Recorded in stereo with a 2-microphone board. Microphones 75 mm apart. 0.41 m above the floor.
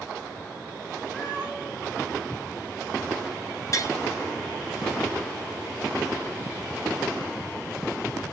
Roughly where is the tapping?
Left.